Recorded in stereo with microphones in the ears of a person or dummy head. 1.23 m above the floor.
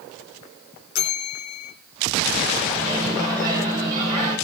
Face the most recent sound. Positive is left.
turn(degrees=-25)  # may be behind; listen again after turning